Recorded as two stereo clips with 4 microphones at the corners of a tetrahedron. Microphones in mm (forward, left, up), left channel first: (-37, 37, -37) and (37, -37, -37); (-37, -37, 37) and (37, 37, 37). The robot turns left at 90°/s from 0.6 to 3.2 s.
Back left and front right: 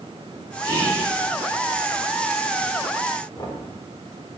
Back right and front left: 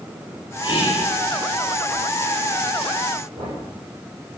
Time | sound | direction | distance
0.6 | whispering | 90° right | 3.5 m
3.4 | knocking | 80° left | 4.5 m